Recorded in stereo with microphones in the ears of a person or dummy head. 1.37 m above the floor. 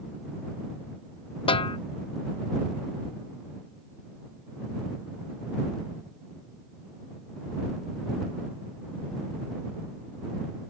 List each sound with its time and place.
1.5 s a snare drum: 35° left (ahead or behind)